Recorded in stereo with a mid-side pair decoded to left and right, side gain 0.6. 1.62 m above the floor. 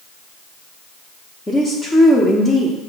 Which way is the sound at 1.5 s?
20° left.